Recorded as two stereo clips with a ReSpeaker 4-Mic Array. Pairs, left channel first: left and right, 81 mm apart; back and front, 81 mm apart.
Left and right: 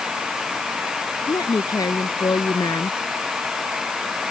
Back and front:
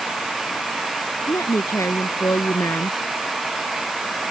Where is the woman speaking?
125° left.